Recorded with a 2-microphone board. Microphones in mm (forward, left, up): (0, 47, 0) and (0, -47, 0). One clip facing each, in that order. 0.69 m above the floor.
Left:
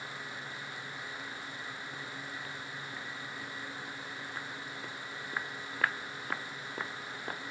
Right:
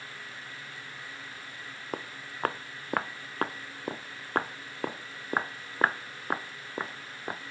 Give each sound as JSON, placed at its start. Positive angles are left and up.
{"t": 1.9, "sound": "footsteps", "side_deg": -70}